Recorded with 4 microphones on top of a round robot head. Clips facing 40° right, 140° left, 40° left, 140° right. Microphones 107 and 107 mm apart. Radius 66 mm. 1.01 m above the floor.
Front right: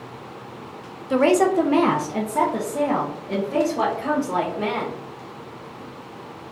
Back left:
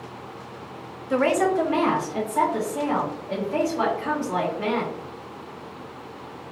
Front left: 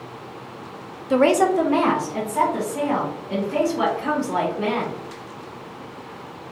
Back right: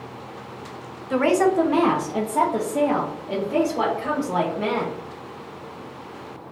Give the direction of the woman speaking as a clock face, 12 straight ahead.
11 o'clock.